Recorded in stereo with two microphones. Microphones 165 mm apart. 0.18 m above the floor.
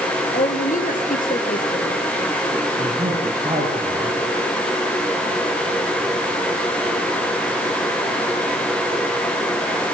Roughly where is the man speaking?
Right.